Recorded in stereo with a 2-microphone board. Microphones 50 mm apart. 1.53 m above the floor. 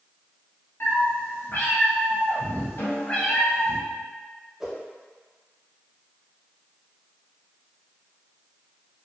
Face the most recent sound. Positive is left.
turn(degrees=-10)  # may be behind; listen again after turning